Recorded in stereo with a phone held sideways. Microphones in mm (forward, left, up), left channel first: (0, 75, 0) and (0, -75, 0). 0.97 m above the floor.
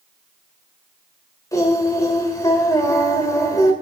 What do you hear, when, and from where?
1.5 s singing: 20° left (ahead or behind), 3 m